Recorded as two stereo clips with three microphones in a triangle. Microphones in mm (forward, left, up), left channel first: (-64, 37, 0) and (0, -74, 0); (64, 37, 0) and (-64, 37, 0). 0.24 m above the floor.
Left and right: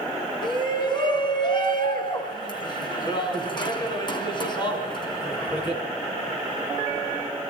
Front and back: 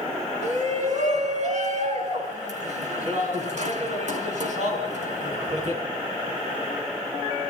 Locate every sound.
0.4 s a shout: 170° left, 3.5 m